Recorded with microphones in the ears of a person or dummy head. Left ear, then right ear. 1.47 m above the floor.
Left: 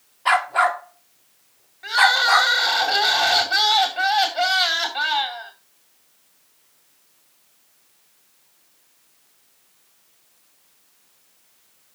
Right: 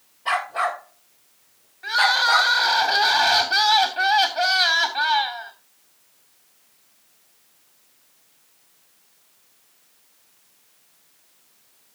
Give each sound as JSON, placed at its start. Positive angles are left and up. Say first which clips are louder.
{"t": 0.2, "sound": "a dog barking", "louder": "left 5 dB", "side_deg": 50, "distance_m": 1.4}
{"t": 1.8, "sound": "crying", "louder": "left 2 dB", "side_deg": 5, "distance_m": 2.5}